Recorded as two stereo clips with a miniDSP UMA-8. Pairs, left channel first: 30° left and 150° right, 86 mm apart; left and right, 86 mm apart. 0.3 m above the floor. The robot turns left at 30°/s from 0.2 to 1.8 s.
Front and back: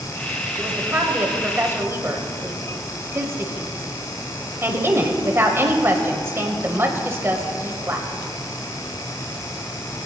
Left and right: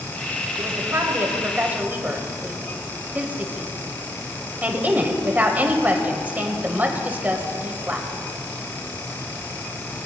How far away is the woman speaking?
About 1.1 m.